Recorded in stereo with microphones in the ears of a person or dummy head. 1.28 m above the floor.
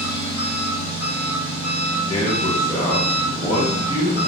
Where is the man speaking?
20° left (ahead or behind), 1.2 m.